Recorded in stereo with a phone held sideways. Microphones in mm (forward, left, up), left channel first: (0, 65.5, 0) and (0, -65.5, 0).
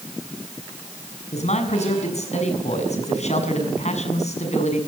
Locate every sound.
1.3 s a man speaking: 60° left (ahead or behind), 6.5 m